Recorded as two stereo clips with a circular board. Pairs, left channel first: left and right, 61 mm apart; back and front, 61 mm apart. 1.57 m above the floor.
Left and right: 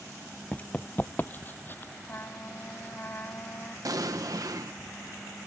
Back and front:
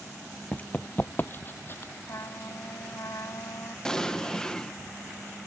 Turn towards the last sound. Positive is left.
turn(degrees=-100)